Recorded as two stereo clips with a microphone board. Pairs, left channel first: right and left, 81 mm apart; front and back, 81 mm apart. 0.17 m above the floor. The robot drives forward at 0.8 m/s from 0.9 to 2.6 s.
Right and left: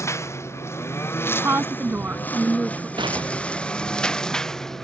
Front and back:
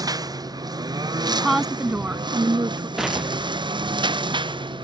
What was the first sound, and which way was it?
A lawn mower, 145° right.